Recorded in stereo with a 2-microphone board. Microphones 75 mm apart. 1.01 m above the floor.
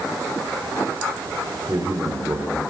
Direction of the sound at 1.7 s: 55° right (ahead or behind).